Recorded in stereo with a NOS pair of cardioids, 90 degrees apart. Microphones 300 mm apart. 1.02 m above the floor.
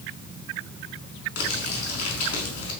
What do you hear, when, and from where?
1.4 s crumpling: 50° left, 5 m